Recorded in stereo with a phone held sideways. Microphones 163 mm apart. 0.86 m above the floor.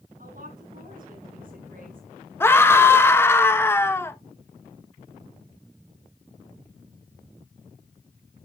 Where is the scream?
15° left (ahead or behind), 1.1 m.